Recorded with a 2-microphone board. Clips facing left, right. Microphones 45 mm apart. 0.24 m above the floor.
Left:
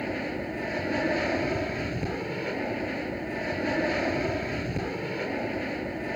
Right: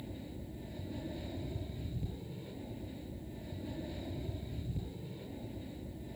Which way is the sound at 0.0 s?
70° left (ahead or behind).